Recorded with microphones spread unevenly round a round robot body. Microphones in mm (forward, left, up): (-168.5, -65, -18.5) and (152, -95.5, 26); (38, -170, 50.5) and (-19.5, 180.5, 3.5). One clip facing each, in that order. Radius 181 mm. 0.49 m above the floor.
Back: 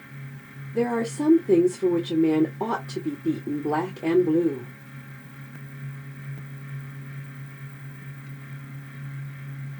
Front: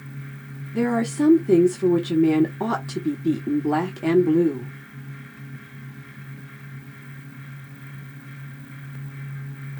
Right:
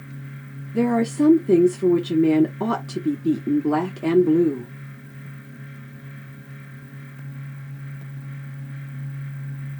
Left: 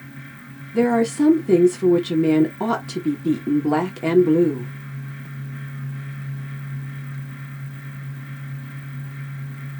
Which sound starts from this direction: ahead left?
A woman speaking, at 0.7 s.